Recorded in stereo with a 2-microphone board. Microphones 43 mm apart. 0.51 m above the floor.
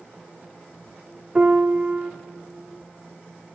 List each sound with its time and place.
1.4 s a piano: 35° right (ahead or behind), 0.8 m